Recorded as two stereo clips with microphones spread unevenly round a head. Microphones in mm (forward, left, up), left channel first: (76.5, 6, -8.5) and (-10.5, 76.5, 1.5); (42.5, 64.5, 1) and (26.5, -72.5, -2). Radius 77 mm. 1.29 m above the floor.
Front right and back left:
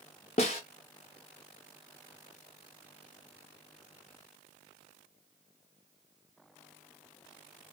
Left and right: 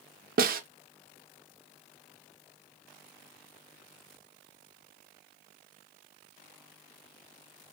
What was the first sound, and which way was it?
A snare drum, 85° right.